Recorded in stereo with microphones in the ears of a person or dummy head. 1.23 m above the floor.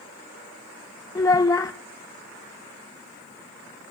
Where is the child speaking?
20° left (ahead or behind), 0.5 m.